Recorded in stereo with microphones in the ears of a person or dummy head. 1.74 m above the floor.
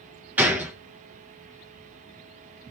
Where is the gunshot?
5° right (ahead or behind), 0.6 m.